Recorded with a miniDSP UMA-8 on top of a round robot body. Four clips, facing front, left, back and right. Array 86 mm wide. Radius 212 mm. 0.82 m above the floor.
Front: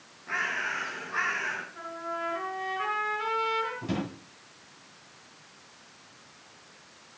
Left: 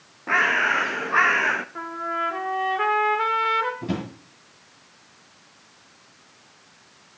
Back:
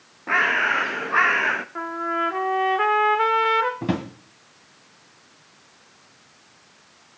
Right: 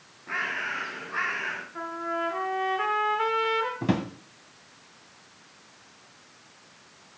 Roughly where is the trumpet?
Behind.